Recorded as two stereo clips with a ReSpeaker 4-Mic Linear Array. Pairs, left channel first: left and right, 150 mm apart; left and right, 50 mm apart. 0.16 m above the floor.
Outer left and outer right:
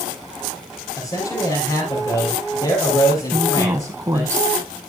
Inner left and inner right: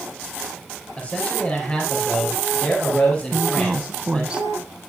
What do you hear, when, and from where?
1.0 s a man speaking: 30° left (ahead or behind), 3.5 m
3.3 s a woman speaking: 20° right (ahead or behind), 1.1 m